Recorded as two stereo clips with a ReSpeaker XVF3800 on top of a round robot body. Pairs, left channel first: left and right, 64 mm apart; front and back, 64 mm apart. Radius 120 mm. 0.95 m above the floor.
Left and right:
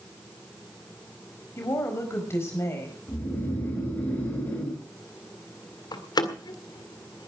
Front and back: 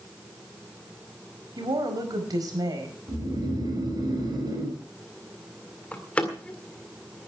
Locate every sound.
1.6 s a woman speaking: 145° left, 5 m
3.1 s snoring: 155° left, 6 m
5.9 s a door slam: 75° left, 1.9 m